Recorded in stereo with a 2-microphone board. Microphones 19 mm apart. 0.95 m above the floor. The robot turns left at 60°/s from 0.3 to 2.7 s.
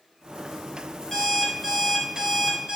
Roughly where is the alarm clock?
Ahead left.